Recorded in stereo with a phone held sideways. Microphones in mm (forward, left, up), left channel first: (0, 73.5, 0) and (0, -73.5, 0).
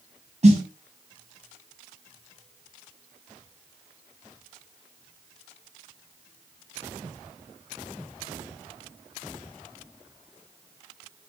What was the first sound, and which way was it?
A snare drum, 50° right (ahead or behind).